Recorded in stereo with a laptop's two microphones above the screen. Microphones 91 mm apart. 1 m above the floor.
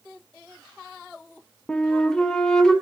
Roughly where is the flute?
Centre.